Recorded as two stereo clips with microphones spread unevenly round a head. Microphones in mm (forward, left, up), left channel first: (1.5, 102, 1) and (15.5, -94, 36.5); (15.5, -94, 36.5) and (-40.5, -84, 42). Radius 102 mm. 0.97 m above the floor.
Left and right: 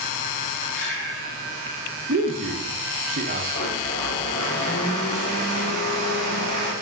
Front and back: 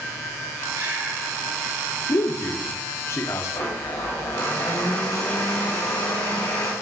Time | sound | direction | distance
0.7 | breathing | 145° left | 4 m
2.1 | a man speaking | 35° right | 1.0 m
3.5 | a blender | 25° left | 2.5 m